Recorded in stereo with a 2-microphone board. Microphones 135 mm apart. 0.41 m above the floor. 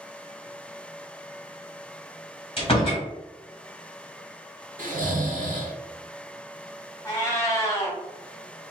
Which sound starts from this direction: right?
Snoring, at 4.8 s.